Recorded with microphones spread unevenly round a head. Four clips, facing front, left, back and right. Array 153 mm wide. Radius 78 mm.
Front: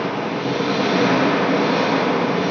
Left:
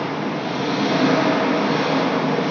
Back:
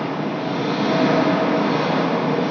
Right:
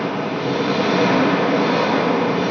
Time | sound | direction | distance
0.0 | an engine running | 70° right | 4 m